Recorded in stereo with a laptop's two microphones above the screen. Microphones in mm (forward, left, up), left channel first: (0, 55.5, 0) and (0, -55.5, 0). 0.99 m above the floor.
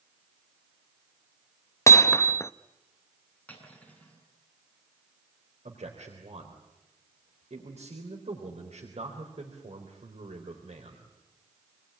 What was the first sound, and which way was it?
Hammering, 25° left (ahead or behind).